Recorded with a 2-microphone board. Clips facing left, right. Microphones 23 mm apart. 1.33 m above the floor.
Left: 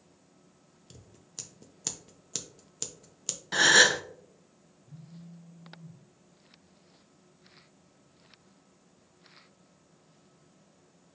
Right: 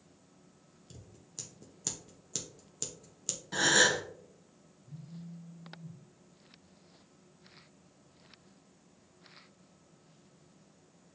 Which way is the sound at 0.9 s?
30° left (ahead or behind).